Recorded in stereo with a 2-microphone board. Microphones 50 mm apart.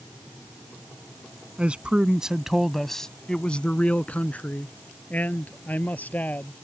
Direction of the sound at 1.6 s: 25° right (ahead or behind).